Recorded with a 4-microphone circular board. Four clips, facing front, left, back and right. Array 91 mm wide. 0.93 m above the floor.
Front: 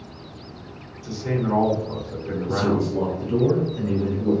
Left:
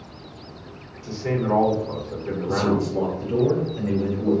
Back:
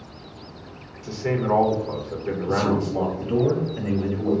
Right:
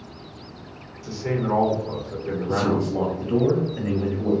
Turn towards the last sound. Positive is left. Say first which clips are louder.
# left 1 dB, even
turn(degrees=-140)